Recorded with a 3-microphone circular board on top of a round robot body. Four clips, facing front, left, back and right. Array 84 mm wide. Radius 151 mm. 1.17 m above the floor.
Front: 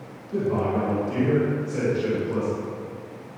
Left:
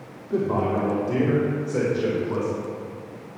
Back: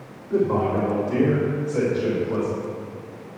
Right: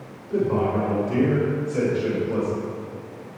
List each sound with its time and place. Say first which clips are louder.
0.3 s a man speaking: right 1 dB, back 3 dB; 130° left, 2.5 m; by 2.5 s 105° left, 4.5 m